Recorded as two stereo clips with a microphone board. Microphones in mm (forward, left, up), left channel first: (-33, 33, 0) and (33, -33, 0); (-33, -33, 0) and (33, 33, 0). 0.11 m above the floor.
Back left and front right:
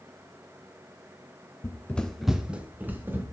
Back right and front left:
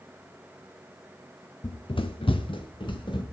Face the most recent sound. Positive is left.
turn(degrees=-110)